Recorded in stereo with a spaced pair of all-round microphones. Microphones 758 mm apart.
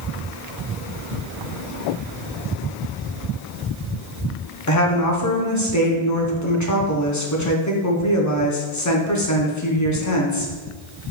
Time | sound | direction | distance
4.7 | a woman speaking | 25° left (ahead or behind) | 0.6 m